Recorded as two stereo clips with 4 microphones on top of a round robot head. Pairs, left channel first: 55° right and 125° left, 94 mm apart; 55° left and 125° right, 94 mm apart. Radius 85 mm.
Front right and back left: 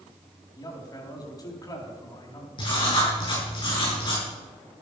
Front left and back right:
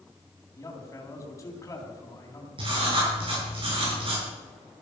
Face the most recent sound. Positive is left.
turn(degrees=-95)